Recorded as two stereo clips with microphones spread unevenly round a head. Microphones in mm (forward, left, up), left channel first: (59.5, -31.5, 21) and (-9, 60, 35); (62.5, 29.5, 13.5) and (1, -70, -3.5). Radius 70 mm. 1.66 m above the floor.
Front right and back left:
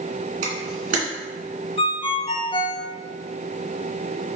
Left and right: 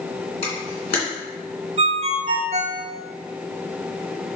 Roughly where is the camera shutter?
Behind left.